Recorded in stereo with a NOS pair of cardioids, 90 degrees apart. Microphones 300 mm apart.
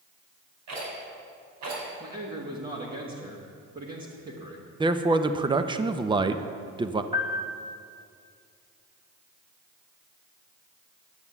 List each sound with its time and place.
0.7 s a rattle: 70° right, 5 m
2.0 s a man speaking: 30° right, 1.8 m
4.8 s a man speaking: 15° right, 0.6 m
7.1 s a piano: 15° right, 2.0 m